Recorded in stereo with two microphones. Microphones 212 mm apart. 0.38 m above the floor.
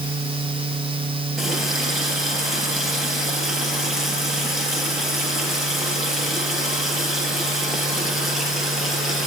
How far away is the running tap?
About 4.5 m.